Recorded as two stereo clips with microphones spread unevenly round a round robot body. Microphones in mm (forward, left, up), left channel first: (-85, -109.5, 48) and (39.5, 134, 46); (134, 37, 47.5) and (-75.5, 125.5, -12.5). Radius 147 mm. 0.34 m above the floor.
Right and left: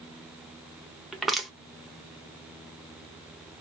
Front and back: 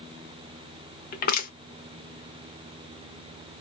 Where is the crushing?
25° right, 0.8 m.